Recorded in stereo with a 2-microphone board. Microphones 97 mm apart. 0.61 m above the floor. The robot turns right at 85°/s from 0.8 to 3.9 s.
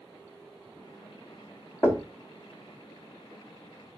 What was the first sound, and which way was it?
Knocking, 25° left (ahead or behind).